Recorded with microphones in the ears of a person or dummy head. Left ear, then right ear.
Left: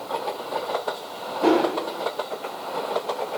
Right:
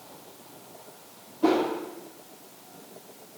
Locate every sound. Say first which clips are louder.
1.4 s a whoosh: left 4 dB; 15° left (ahead or behind), 4 m